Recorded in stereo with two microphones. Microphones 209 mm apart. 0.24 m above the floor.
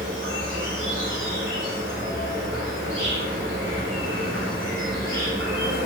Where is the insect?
65° right (ahead or behind), 1.6 m.